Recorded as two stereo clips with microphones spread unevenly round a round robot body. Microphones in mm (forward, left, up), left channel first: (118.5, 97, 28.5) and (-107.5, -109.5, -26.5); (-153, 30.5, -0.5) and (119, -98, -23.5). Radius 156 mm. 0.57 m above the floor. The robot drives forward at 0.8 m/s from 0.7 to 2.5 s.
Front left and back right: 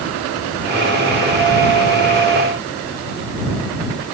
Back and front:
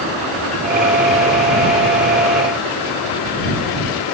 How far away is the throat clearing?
I don't hear throat clearing.